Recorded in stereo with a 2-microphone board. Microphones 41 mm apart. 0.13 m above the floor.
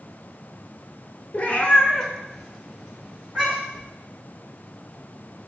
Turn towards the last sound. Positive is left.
turn(degrees=-10)  # may be behind; listen again after turning